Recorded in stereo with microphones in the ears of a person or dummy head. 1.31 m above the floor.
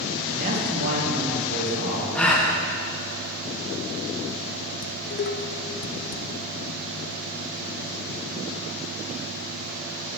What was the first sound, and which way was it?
A man speaking, 45° right (ahead or behind).